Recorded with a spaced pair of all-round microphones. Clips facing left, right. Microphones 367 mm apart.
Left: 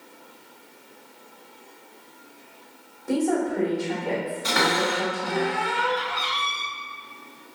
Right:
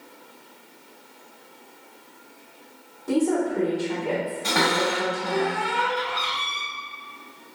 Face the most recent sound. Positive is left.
turn(degrees=-60)  # may be behind; listen again after turning